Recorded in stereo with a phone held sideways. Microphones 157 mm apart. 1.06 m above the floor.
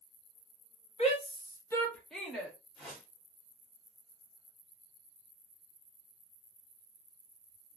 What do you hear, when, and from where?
1.0 s a shout: 45° left (ahead or behind), 0.9 m; by 2.5 s 5° right (ahead or behind), 1.5 m
2.8 s a whoosh: centre (ahead or behind), 1.7 m